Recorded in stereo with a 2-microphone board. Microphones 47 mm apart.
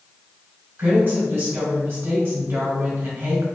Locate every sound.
0.8 s a woman speaking: 50° right (ahead or behind), 1.4 m